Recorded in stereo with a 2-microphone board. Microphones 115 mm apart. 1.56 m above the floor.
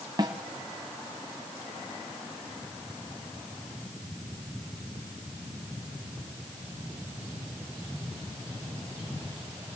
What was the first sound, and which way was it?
A snare drum, 35° right (ahead or behind).